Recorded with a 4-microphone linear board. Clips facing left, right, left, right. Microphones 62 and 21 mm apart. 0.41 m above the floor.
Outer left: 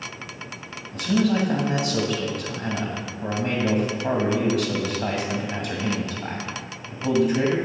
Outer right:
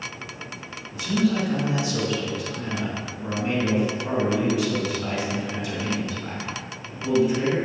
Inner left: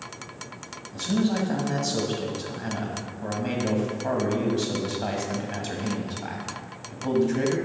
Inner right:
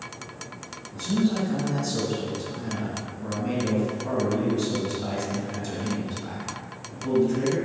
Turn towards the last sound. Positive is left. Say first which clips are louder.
# outer left 1 dB, even
turn(degrees=65)  # may be behind; listen again after turning